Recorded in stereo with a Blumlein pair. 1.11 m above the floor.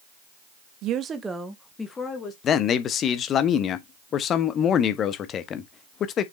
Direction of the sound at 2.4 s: 30° left.